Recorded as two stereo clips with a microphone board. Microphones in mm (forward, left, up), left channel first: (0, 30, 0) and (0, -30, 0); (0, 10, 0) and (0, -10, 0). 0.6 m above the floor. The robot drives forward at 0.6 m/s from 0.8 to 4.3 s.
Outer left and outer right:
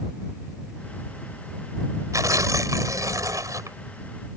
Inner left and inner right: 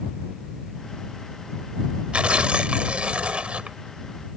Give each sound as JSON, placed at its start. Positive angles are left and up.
{"t": 2.1, "sound": "tearing paper", "side_deg": -65}